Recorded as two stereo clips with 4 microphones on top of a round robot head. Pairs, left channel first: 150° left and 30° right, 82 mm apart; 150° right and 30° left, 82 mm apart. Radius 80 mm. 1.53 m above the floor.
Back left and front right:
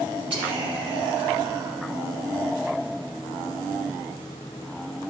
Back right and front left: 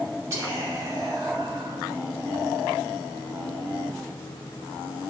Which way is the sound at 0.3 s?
20° right.